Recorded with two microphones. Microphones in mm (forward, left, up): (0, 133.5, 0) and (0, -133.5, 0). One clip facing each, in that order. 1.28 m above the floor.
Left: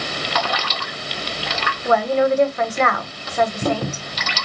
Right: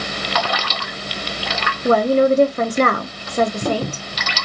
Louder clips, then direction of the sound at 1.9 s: Right 4 dB; 40° right (ahead or behind).